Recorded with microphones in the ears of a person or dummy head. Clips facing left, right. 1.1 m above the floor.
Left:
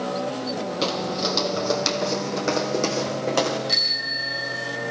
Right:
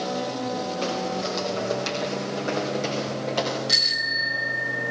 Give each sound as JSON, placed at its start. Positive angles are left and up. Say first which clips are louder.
{"t": 0.8, "sound": "footsteps", "louder": "left 1 dB", "side_deg": 60, "distance_m": 2.5}
{"t": 3.7, "sound": "a bicycle bell", "louder": "left 1 dB", "side_deg": -5, "distance_m": 3.5}